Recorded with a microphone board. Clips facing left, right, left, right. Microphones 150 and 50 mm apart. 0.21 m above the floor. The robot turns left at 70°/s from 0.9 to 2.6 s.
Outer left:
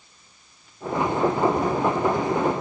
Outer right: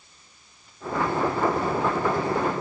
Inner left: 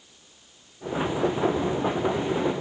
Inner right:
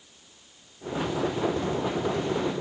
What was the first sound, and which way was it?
Only background noise.